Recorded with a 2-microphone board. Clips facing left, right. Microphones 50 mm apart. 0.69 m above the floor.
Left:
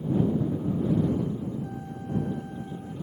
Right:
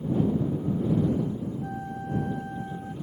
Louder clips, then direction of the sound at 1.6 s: Right 2 dB; 35° right (ahead or behind).